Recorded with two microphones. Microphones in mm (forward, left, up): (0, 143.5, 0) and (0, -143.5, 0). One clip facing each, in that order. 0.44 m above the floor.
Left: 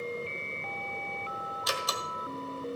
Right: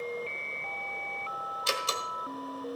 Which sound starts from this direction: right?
A door slam, at 1.7 s.